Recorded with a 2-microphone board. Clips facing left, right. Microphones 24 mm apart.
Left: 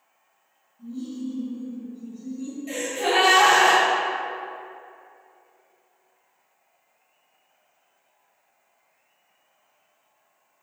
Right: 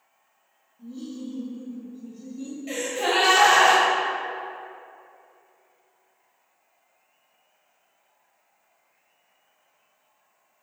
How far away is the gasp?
About 0.6 m.